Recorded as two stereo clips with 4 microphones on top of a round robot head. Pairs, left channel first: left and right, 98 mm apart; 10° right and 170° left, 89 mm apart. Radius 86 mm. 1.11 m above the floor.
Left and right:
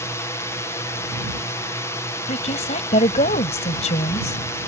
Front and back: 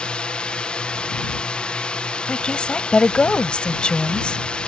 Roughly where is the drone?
Ahead left.